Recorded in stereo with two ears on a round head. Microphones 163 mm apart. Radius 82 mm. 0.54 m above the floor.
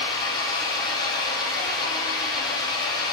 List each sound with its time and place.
0.0 s an engine running: 25° left (ahead or behind), 8 m